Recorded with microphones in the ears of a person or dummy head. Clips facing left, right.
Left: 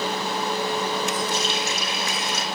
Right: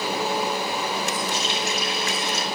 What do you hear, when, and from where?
1.3 s a running tap: 85° left, 6 m